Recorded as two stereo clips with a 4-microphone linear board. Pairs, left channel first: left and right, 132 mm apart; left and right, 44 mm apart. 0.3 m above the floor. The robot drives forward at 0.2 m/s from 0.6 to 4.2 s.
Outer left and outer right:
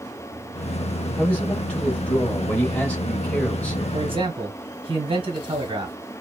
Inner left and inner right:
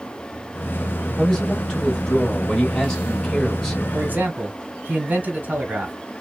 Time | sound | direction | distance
1.2 | a man speaking | 10° left (ahead or behind) | 1.0 m
3.9 | a man speaking | 40° right (ahead or behind) | 1.3 m